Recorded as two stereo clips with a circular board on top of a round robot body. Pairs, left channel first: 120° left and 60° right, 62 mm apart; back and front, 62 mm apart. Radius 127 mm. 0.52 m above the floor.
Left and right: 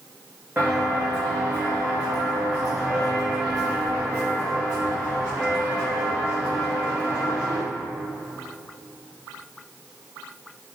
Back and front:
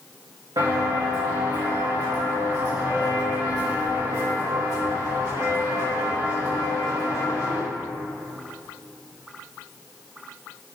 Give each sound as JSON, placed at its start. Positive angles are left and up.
{"t": 0.6, "sound": "footsteps", "azimuth_deg": 5, "distance_m": 3.0}